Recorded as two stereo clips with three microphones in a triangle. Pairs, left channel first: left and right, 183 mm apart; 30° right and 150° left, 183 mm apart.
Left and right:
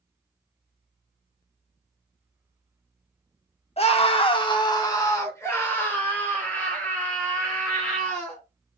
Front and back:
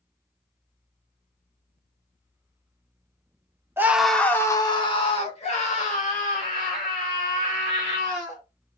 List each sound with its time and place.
3.8 s a scream: 85° left, 0.9 m; by 8.4 s 5° left, 4 m